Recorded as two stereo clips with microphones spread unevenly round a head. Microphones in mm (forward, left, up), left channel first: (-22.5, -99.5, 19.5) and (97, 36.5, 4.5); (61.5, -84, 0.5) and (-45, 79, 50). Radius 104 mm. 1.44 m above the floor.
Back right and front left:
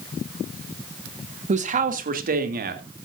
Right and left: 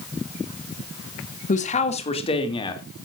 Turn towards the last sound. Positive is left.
turn(degrees=15)